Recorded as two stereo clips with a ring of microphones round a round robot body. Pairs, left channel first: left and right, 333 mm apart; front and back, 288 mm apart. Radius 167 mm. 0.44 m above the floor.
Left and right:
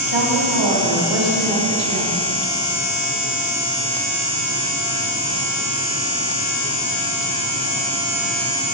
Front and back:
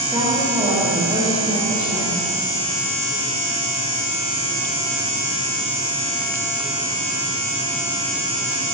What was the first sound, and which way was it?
A woman speaking, 100° right.